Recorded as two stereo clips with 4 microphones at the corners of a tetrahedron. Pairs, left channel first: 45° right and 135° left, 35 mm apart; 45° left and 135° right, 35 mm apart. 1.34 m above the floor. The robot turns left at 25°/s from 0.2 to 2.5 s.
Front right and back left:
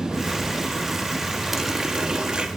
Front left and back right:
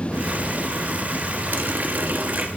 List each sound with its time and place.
1.5 s a running tap: 145° right, 1.4 m; by 2.5 s 165° right, 1.4 m